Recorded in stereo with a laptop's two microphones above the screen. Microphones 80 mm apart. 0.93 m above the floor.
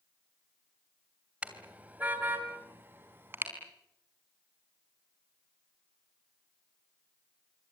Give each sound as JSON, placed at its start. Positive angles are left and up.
{"t": 1.4, "sound": "a car horn", "side_deg": -20, "distance_m": 2.5}